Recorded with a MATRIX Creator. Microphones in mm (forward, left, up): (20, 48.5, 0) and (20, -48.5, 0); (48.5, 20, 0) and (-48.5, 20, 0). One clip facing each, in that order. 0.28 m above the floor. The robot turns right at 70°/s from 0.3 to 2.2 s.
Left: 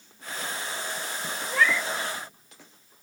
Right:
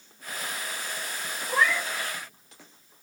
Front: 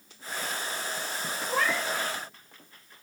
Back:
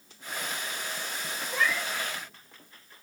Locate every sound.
1.5 s a cat meowing: 40° right, 1.1 m; by 1.9 s 15° right, 1.1 m